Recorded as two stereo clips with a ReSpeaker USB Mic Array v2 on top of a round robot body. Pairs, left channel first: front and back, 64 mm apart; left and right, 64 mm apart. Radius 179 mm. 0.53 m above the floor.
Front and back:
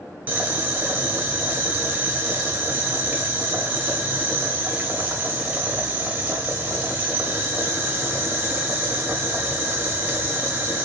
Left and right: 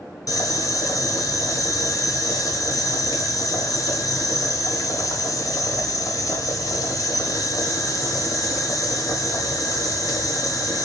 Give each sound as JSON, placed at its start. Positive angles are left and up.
{"t": 0.3, "sound": "boiling", "azimuth_deg": 115, "distance_m": 1.2}